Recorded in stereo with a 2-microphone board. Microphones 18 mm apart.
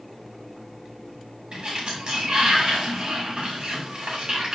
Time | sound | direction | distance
1.5 | a sliding door | 45° right (ahead or behind) | 5.5 m